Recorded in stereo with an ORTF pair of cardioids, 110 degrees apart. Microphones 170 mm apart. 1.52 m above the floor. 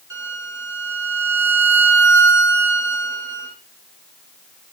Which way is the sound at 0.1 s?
20° right.